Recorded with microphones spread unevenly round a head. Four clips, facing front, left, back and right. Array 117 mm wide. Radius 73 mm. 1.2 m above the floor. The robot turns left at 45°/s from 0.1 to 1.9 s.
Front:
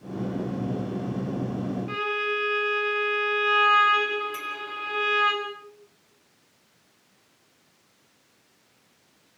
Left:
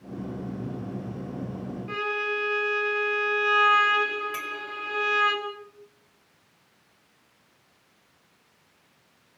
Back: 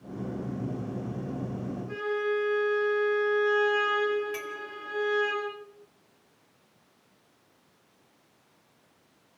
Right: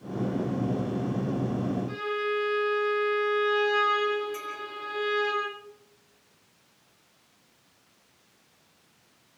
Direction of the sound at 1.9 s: 20° left.